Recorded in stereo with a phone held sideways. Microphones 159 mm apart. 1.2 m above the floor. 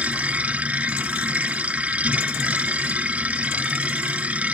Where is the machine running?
10° right (ahead or behind).